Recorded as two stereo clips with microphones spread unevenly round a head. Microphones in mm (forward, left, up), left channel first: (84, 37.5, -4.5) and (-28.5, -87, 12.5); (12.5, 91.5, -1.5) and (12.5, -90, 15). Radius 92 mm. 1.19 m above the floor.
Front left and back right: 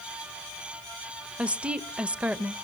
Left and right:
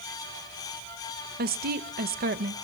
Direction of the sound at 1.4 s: 45° right.